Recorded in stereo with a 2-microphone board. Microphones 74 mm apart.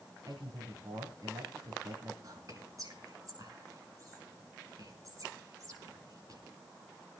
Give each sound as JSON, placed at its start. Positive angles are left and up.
{"t": 0.3, "sound": "a man speaking", "side_deg": -50, "distance_m": 3.0}
{"t": 2.2, "sound": "whispering", "side_deg": -45, "distance_m": 5.0}